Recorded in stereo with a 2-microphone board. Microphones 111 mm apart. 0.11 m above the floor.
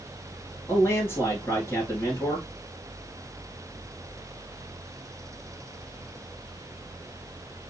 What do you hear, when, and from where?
0.7 s a man speaking: 25° left (ahead or behind), 1.6 m